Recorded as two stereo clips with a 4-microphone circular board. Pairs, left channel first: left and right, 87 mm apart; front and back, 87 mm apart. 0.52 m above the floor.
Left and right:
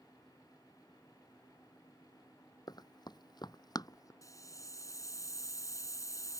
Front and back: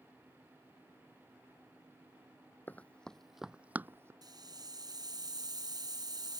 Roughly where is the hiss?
Behind left.